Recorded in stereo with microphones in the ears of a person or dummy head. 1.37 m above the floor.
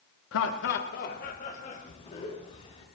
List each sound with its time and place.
0.3 s laughter: 75° left (ahead or behind), 1.1 m; by 2.9 s 35° left (ahead or behind), 3.5 m